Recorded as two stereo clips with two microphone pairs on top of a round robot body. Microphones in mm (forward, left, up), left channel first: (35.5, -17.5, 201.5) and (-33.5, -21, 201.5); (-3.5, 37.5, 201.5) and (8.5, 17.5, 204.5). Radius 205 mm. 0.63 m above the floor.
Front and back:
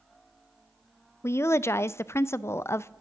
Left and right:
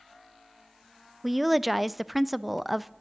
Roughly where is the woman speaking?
Ahead left.